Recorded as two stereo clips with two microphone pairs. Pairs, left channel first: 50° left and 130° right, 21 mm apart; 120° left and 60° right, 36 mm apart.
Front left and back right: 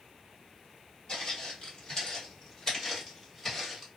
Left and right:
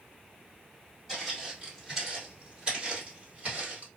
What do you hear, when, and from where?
1.1 s footsteps: 35° left, 1.9 m; by 3.9 s 40° right, 1.7 m